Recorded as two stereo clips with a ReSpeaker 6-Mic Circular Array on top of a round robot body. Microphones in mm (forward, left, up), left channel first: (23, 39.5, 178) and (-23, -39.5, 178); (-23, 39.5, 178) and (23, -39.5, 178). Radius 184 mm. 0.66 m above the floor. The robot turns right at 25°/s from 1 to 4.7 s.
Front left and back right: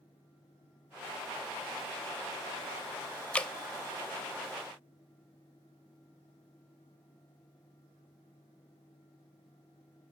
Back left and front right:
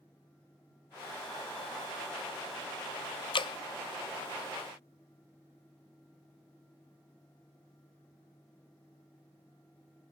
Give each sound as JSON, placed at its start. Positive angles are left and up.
{"t": 3.3, "sound": "dripping", "azimuth_deg": 135, "distance_m": 0.5}